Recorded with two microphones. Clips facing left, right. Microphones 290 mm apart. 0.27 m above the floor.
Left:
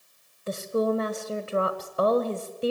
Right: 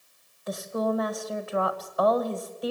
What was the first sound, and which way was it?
A woman speaking, 30° left (ahead or behind).